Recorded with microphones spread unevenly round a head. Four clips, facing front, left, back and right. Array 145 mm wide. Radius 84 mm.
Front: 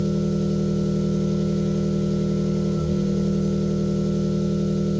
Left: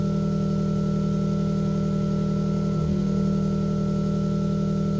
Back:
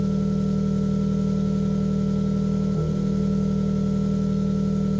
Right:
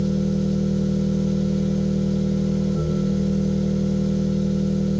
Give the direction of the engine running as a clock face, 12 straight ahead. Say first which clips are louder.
Right 3 dB, front 1 dB; 7 o'clock.